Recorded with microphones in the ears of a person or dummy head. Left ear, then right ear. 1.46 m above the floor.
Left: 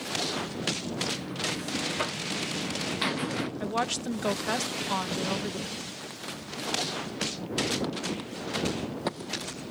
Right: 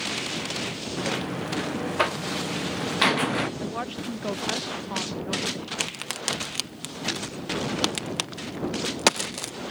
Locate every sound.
1.0 s a buzzer: 25° right (ahead or behind)
3.6 s a woman speaking: 85° left
5.8 s a crack: 70° right (ahead or behind)